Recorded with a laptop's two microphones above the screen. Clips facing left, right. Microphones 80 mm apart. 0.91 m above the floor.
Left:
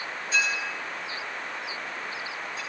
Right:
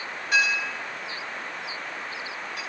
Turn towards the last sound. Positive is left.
turn(degrees=-70)  # may be behind; listen again after turning